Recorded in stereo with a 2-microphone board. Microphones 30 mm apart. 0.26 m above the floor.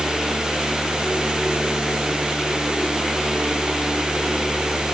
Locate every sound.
Only background noise.